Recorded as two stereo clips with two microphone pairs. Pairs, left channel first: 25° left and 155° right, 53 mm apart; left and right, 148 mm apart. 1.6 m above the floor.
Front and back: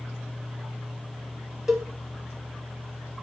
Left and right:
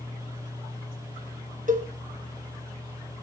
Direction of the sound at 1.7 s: 75° right.